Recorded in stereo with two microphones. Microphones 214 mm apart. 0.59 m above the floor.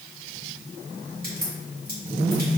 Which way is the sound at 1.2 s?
45° right (ahead or behind).